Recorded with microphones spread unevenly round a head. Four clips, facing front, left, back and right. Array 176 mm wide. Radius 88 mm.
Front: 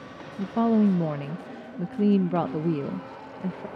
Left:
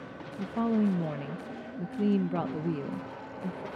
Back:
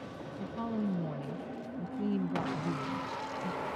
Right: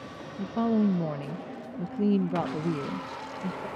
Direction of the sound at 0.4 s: 10° right.